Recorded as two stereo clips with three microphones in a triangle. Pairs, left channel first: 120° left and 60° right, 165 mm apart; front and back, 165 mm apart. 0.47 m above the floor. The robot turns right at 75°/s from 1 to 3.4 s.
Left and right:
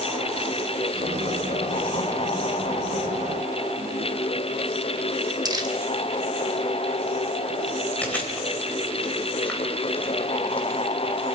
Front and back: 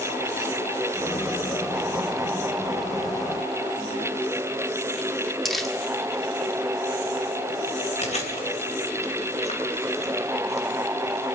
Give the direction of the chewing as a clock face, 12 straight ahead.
11 o'clock.